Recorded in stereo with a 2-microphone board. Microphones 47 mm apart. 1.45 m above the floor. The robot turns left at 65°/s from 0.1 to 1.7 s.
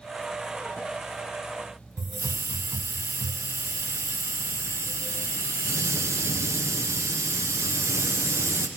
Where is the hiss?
80° right, 0.6 m.